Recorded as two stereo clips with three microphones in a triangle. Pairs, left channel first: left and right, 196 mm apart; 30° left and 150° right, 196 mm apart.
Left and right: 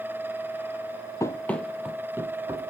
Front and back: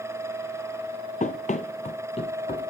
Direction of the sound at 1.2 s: 25° left.